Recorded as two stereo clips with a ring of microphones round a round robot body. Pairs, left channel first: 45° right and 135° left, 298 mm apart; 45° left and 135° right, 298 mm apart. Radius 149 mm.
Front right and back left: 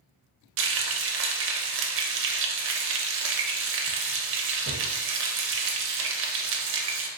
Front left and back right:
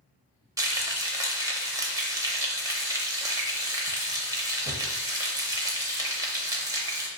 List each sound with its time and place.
0.6 s frying: 150° left, 0.6 m